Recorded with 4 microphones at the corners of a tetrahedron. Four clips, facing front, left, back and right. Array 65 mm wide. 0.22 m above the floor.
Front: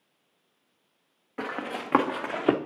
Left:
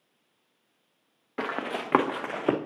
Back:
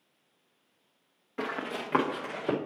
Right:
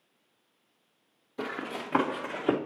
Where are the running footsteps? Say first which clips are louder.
Left 4 dB, front 1 dB; 75° left, 1.3 m; by 2.6 s 25° left, 0.9 m.